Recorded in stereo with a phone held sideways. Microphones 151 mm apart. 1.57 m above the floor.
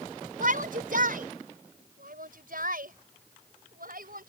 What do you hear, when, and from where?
0.4 s a shout: 65° right (ahead or behind); by 4.3 s 75° right (ahead or behind)